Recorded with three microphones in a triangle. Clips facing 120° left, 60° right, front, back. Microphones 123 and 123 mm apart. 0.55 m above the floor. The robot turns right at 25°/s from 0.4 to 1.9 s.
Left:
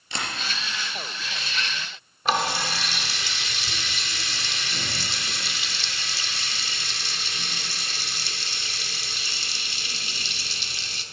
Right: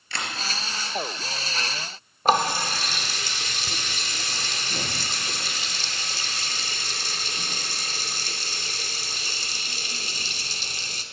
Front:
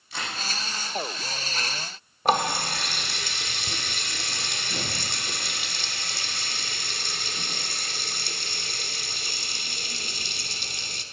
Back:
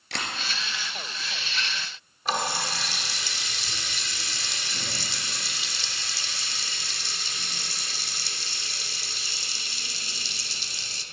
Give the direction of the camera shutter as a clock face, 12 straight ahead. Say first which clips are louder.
Left 1 dB, back 1 dB; 6 o'clock.